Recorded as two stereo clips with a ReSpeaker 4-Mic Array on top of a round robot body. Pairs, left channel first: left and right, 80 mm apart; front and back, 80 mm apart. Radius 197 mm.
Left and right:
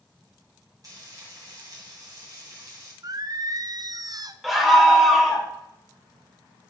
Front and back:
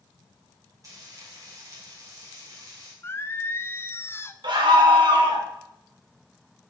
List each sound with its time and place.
0.8 s frying: 135° right, 3.5 m
3.0 s singing: 60° right, 0.7 m
4.4 s a scream: 175° right, 2.5 m